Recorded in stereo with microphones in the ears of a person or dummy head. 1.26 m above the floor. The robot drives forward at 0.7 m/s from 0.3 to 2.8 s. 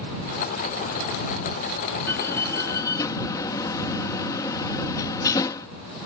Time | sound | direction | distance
2.1 | a door slam | 15° left (ahead or behind) | ?